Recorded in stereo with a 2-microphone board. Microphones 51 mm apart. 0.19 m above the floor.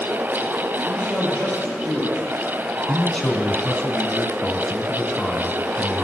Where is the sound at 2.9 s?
20° left (ahead or behind), 1.5 m.